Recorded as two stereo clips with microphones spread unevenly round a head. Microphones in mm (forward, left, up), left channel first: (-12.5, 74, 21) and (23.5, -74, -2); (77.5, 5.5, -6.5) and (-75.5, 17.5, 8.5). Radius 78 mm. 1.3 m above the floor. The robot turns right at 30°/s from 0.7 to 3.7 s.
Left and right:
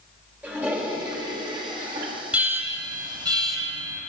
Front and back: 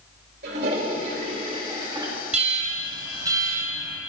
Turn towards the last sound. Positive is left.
turn(degrees=-105)